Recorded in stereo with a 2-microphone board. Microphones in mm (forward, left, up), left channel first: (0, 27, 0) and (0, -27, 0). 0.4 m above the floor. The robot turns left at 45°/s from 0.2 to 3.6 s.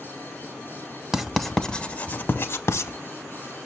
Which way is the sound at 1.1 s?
10° right (ahead or behind).